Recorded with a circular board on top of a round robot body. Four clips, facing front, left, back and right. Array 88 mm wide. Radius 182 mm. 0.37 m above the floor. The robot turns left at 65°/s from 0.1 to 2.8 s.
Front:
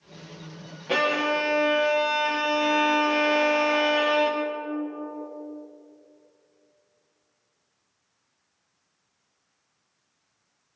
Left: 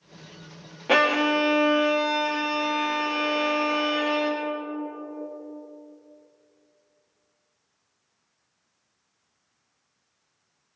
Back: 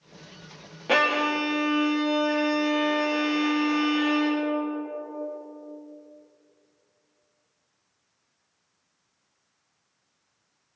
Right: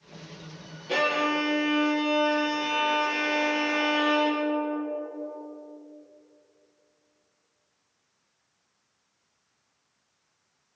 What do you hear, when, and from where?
0.9 s a violin: 120° left, 0.6 m; by 4.4 s 5° right, 0.6 m